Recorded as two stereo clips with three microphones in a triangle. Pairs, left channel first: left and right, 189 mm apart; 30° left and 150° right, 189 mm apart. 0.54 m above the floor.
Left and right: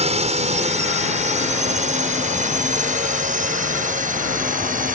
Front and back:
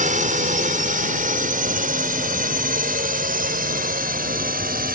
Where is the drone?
130° right; by 5.0 s 125° right.